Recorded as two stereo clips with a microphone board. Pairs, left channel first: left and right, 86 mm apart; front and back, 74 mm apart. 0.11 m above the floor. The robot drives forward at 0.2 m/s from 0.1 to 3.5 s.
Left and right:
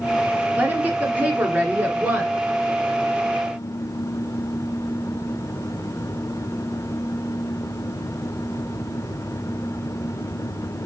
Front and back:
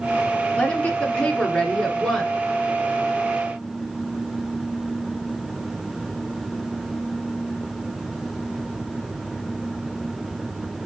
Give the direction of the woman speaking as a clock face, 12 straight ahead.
2 o'clock.